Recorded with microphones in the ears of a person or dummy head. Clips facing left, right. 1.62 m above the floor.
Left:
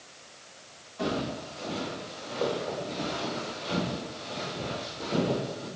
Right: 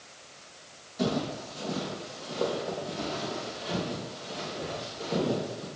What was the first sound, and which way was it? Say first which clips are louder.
Footsteps: right 1 dB; 20° right (ahead or behind).